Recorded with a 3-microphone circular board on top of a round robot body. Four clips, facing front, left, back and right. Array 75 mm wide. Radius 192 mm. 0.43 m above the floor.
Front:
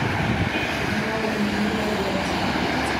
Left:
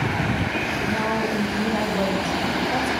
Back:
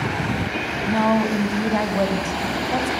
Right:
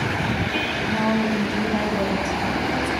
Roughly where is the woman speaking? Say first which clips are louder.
Right 3 dB, back 5 dB; behind.